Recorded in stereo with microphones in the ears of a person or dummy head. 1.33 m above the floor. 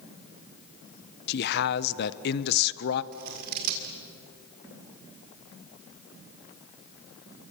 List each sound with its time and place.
1.3 s a man speaking: 60° left (ahead or behind), 0.9 m
3.1 s scissors: 50° right (ahead or behind), 1.9 m